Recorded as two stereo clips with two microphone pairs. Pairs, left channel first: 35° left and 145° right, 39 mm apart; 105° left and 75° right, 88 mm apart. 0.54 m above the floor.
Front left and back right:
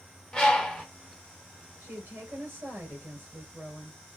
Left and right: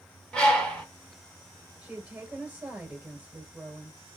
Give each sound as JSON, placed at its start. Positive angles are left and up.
{"t": 0.3, "sound": "a bird", "azimuth_deg": 55, "distance_m": 1.2}
{"t": 1.8, "sound": "a woman speaking", "azimuth_deg": -150, "distance_m": 2.5}